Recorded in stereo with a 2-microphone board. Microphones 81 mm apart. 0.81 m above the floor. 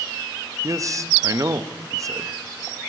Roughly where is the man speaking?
Right.